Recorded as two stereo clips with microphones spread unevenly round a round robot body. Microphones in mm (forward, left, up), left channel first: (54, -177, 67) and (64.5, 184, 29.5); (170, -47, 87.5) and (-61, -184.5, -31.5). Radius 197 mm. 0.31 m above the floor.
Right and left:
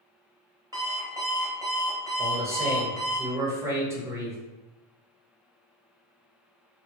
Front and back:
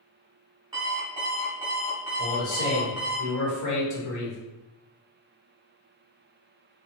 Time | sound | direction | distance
0.7 | an alarm clock | 160° left | 0.5 m
2.2 | a man speaking | 20° left | 1.1 m